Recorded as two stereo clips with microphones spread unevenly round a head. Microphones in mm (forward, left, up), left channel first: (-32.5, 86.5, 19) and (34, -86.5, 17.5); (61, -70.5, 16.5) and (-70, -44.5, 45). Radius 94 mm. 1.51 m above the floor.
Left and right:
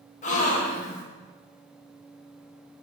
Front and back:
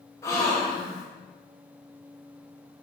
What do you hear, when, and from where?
0.2 s a gasp: 70° left, 1.0 m